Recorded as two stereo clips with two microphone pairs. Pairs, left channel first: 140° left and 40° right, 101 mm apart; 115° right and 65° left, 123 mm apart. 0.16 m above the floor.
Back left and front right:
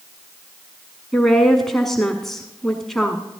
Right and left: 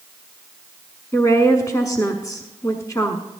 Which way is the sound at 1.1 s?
135° right.